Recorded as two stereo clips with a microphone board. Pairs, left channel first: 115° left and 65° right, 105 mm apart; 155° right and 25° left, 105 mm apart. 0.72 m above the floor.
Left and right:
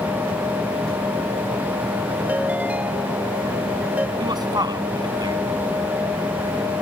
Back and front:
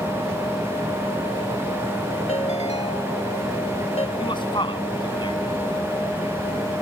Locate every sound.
2.3 s a ringtone: 145° right
4.2 s a man speaking: 115° right